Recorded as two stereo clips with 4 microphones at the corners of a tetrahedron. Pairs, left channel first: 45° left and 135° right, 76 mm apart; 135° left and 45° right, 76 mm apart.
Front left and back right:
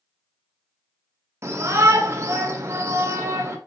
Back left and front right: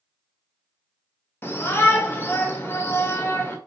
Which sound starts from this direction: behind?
A shout, at 1.4 s.